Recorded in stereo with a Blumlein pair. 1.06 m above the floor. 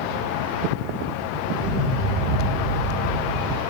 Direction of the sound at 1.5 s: 25° right.